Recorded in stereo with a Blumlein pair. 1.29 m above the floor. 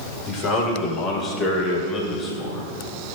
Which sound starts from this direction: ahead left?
A man speaking, at 0.3 s.